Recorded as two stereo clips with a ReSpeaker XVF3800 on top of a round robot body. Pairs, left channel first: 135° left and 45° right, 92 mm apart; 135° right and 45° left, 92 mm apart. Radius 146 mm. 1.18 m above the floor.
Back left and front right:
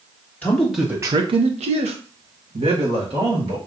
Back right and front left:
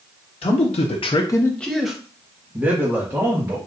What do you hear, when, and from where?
0.4 s a man speaking: 150° right, 0.8 m; by 3.6 s 20° right, 2 m